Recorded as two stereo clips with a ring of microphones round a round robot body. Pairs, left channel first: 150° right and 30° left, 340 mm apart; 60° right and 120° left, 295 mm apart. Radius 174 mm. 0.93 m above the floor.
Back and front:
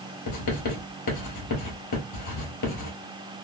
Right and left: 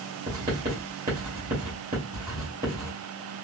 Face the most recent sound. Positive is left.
turn(degrees=-175)